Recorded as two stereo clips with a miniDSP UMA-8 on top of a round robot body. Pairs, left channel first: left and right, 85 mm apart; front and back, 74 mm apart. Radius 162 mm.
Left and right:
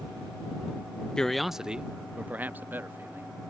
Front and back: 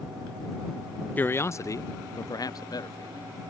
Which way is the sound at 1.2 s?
20° left.